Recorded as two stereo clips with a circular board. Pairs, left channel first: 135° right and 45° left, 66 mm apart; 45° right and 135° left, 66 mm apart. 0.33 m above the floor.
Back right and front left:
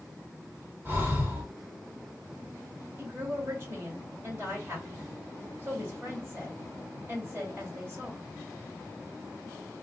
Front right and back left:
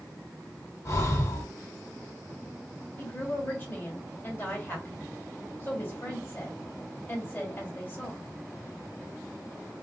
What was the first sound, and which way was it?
Breathing, 10° right.